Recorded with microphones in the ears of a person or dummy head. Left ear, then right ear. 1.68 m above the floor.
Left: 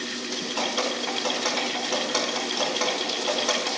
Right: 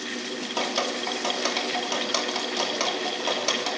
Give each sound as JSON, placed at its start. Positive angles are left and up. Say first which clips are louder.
{"t": 0.6, "sound": "dripping", "louder": "even", "side_deg": -75, "distance_m": 3.0}